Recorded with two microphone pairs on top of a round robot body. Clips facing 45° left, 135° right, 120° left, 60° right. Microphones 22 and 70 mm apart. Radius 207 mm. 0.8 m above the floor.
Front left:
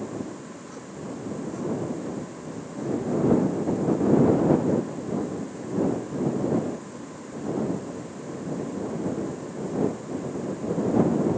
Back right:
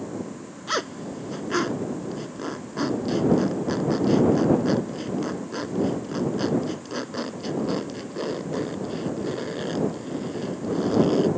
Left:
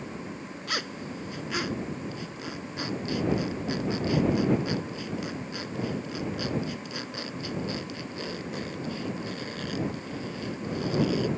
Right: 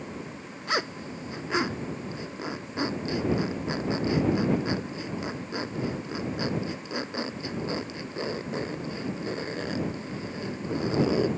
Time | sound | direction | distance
0.7 | a zipper | 125° right | ?